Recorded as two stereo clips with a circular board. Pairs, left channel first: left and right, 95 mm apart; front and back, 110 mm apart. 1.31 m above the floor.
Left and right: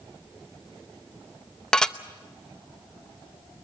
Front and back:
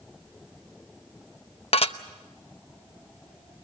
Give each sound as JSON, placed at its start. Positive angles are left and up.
{"t": 1.7, "sound": "dishes clattering", "azimuth_deg": 10, "distance_m": 0.8}